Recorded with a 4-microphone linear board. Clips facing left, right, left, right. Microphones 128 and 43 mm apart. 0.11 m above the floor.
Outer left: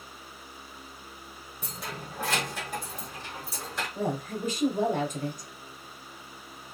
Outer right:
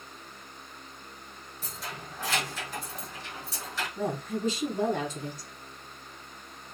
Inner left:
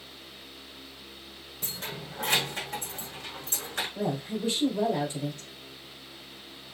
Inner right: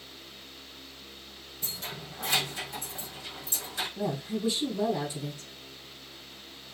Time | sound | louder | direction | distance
1.6 | keys jangling | outer left 2 dB, inner left 2 dB | 55° left (ahead or behind) | 2.5 m
4.0 | a woman speaking | even, even | 50° left (ahead or behind) | 2.5 m